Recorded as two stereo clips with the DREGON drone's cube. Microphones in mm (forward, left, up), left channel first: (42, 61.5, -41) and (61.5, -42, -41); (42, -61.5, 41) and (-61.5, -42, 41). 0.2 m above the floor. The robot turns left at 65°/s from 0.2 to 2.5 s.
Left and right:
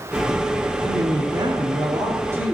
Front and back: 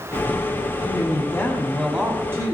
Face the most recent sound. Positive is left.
turn(degrees=-145)